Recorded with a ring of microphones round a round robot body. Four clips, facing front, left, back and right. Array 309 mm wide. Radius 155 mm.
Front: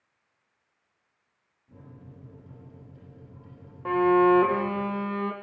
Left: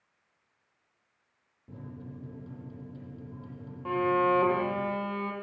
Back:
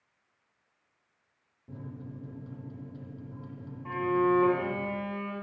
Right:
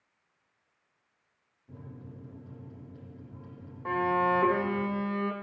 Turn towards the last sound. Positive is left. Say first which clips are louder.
# left 1 dB, front 7 dB
turn(degrees=-10)